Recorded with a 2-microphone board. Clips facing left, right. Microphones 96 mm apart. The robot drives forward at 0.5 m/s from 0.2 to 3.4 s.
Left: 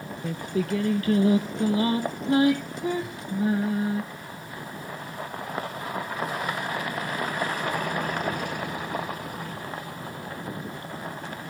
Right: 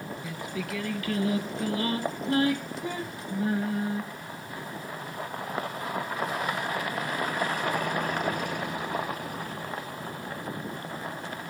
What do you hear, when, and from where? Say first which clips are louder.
0.2 s singing: left 10 dB; 55° left (ahead or behind), 0.6 m; by 4.0 s 15° left (ahead or behind), 2 m